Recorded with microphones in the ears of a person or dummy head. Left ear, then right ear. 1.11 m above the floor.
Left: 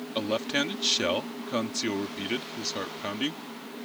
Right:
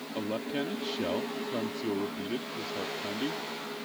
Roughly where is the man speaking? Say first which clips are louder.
Left 6 dB; left.